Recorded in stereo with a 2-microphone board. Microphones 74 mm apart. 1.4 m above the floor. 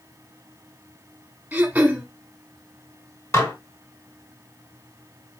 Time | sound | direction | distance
1.5 | throat clearing | 15° right (ahead or behind) | 1.1 m
3.3 | dishes clattering | 40° left (ahead or behind) | 2 m